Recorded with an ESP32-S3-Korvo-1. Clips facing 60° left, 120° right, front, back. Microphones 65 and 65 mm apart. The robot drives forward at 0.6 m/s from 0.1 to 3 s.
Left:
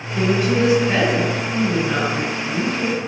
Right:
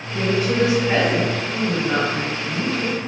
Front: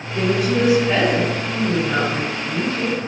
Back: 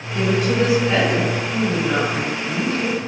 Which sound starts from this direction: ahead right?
A woman speaking, at 0.1 s.